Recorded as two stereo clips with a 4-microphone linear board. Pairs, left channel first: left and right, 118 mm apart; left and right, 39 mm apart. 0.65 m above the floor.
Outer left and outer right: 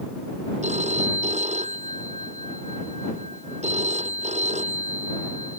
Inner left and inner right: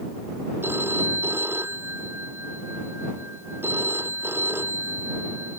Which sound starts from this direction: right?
A phone ringing, at 0.6 s.